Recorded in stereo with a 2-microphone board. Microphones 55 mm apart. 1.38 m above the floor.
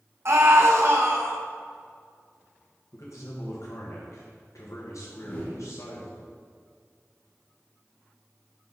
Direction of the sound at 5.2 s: 35° left (ahead or behind).